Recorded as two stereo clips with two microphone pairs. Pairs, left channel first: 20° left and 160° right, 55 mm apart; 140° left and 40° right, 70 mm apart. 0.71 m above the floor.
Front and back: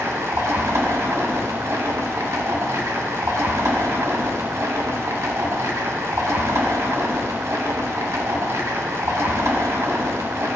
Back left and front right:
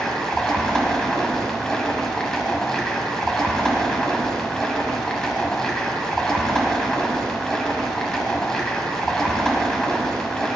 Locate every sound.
0.0 s running water: 135° right, 1.6 m